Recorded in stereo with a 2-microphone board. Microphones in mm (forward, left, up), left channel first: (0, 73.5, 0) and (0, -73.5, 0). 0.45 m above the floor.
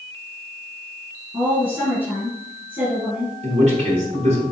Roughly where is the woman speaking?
Centre.